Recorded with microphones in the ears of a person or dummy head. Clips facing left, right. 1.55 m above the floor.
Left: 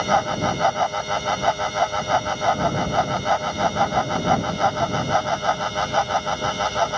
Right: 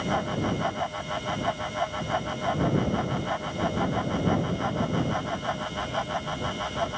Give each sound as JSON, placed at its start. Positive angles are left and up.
{"t": 0.0, "sound": "a fan", "side_deg": 85}